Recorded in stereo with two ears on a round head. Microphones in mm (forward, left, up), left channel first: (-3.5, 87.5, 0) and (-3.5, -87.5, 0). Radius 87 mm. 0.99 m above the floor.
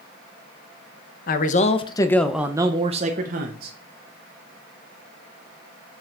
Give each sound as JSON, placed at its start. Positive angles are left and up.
{"t": 1.3, "sound": "a man speaking", "side_deg": 50, "distance_m": 1.0}